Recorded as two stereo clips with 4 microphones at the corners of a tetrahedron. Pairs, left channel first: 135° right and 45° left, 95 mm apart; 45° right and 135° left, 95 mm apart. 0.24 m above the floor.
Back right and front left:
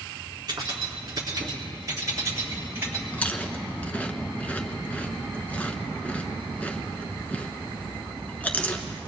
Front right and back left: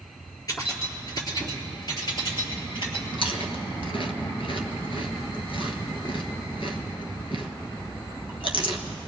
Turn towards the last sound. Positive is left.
turn(degrees=-60)